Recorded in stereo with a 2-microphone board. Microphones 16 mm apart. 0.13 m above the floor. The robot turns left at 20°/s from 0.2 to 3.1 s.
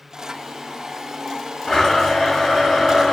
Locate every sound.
1.7 s a blender: 50° left (ahead or behind), 2.5 m; by 3.1 s 65° left (ahead or behind), 2.5 m